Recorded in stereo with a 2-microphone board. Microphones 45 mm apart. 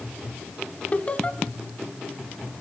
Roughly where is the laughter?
Left.